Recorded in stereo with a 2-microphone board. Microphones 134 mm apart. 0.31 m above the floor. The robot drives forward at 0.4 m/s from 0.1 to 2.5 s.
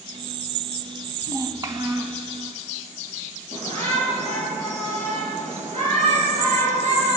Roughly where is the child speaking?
Right.